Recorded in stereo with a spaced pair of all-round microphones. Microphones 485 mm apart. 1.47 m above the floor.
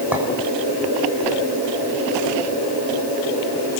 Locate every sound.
0.1 s a clink: 5° right (ahead or behind), 6 m